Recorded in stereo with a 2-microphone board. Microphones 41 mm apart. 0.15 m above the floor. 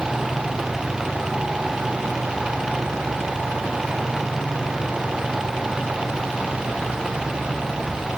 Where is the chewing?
No chewing in this recording.